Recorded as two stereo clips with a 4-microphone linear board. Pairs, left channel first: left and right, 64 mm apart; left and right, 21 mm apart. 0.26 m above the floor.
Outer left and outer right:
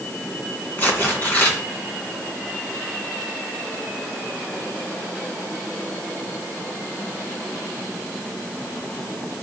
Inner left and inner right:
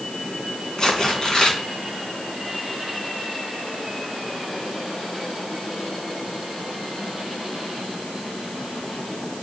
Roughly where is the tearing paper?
Left.